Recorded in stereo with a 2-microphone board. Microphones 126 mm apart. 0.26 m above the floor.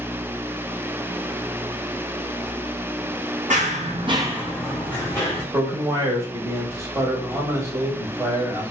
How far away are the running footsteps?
About 0.9 m.